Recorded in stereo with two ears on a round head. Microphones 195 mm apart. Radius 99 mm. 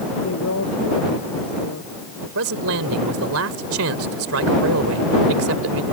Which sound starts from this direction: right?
A man speaking, at 2.4 s.